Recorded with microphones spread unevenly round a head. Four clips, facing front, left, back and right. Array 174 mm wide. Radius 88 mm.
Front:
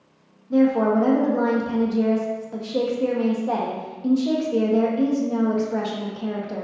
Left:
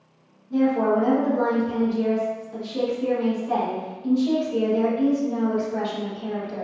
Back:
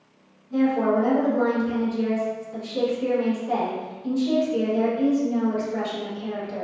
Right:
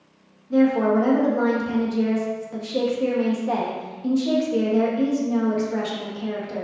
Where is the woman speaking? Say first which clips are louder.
Right 2 dB, front 3 dB; 25° right, 0.9 m.